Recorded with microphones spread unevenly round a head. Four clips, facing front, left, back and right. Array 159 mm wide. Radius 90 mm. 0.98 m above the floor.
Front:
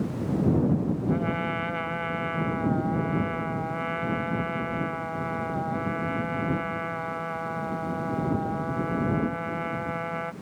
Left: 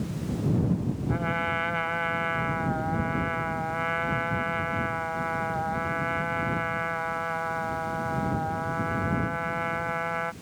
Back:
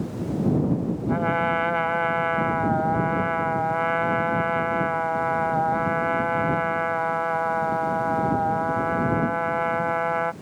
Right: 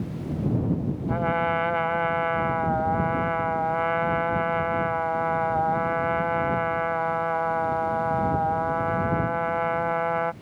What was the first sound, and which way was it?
A trumpet, 140° right.